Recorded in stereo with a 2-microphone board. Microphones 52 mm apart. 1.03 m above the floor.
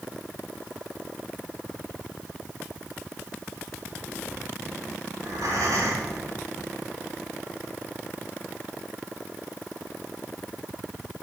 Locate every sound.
5.2 s breathing: 70° right (ahead or behind), 2 m